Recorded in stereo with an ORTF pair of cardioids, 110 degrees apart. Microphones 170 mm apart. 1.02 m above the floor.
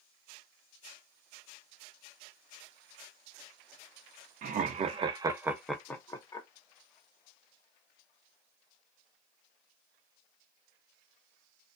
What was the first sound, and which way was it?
Laughter, 55° right.